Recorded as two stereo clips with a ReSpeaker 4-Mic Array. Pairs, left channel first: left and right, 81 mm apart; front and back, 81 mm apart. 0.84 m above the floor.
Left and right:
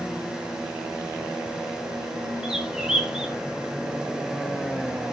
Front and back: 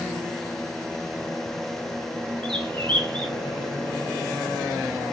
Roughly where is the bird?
Behind.